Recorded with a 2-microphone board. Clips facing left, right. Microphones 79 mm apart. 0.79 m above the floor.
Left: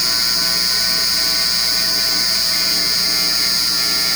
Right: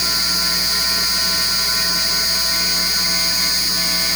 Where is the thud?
I don't hear a thud.